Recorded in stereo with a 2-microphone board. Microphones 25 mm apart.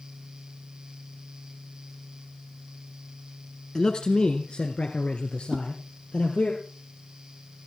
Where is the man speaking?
25° left (ahead or behind), 1.2 m; by 6.5 s 60° left (ahead or behind), 3 m.